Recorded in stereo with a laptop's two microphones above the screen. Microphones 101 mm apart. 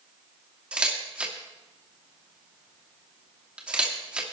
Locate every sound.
0.7 s a camera shutter: 10° right (ahead or behind), 2.5 m